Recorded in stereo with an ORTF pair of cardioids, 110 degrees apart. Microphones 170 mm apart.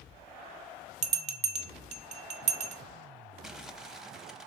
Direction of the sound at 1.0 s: 40° right.